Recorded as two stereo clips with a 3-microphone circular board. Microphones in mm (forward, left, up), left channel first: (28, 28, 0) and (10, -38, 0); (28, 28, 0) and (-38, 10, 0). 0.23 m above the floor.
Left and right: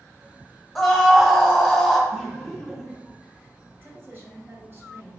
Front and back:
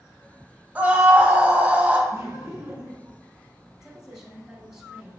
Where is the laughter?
160° left, 1.1 m.